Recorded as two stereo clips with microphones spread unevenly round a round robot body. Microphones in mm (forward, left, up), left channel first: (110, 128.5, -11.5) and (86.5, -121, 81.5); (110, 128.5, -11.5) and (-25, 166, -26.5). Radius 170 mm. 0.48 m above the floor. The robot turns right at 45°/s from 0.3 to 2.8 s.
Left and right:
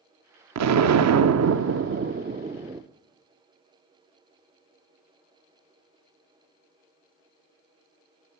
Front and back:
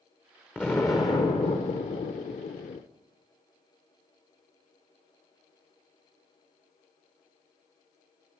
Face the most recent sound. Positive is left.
turn(degrees=0)